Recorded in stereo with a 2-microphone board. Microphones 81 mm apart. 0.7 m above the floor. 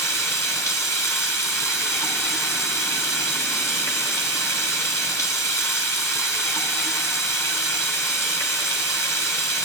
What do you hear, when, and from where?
0.0 s running water: 35° left (ahead or behind), 1.0 m